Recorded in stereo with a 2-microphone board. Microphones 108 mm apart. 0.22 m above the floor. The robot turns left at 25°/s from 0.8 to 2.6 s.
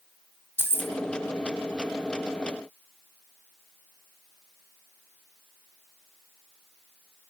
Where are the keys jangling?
20° right (ahead or behind), 0.7 m.